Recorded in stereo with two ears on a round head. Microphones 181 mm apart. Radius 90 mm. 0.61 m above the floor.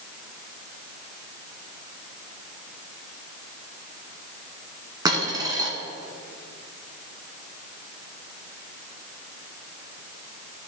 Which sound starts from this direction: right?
A dropped coin, at 5.0 s.